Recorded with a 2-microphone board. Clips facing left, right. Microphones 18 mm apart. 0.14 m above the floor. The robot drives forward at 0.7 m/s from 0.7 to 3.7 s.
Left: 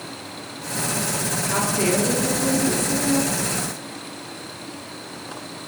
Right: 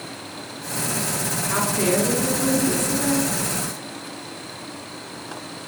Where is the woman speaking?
25° right (ahead or behind), 2.5 m; by 3.3 s 30° right (ahead or behind), 1.8 m.